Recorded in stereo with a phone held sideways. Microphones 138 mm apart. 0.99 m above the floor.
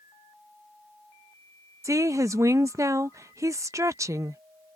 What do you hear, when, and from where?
1.8 s a woman speaking: 20° right (ahead or behind)